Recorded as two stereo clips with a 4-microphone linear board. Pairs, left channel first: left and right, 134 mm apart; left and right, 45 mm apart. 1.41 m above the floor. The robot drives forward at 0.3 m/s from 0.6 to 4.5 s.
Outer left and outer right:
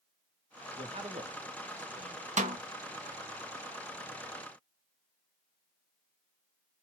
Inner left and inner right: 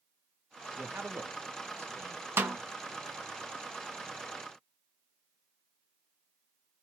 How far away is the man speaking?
About 1.0 m.